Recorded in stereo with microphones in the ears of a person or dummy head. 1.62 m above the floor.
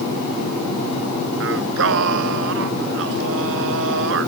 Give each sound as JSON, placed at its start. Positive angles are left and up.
{"t": 1.4, "sound": "singing", "side_deg": -80}